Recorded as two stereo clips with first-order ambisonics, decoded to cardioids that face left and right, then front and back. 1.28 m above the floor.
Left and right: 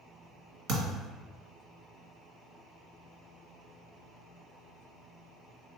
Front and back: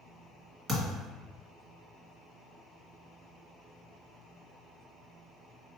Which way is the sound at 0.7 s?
110° right.